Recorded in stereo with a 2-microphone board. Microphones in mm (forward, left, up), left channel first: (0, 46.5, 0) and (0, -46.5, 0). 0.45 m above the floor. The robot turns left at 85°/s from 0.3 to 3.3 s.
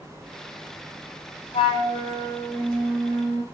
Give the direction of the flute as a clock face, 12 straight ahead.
9 o'clock.